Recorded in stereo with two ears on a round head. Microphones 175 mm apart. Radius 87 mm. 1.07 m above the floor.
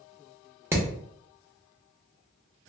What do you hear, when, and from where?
0.7 s hammering: 15° right (ahead or behind), 0.7 m